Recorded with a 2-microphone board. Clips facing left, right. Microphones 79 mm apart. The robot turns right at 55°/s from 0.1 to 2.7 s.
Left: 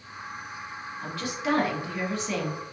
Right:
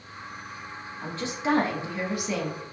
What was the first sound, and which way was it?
A woman speaking, 95° right.